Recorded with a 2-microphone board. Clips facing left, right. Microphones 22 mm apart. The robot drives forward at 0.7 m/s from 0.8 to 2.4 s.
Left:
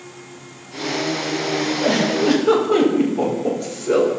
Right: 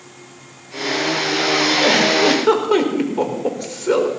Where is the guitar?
No guitar in this recording.